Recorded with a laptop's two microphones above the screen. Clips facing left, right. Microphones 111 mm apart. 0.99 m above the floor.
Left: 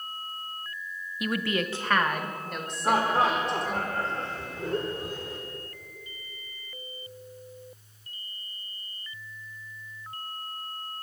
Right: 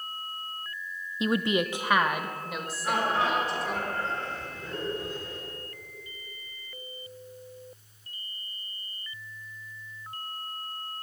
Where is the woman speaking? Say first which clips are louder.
Right 3 dB; 25° right (ahead or behind), 0.7 m; by 3.8 s centre (ahead or behind), 3 m.